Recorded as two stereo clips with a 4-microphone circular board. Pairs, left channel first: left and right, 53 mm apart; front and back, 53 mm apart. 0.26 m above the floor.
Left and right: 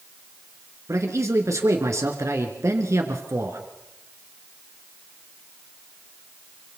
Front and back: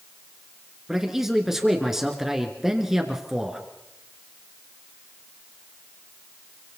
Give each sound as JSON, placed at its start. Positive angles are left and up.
{"t": 0.9, "sound": "a man speaking", "azimuth_deg": -100, "distance_m": 3.5}